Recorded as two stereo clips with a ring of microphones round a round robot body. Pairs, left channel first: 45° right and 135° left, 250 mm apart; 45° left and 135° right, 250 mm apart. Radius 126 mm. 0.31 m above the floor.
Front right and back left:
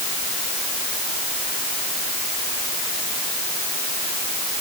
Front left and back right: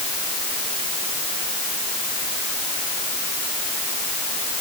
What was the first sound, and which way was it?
Only background noise.